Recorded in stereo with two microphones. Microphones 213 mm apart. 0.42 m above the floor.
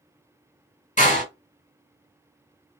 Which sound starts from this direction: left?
A door slam, at 1.0 s.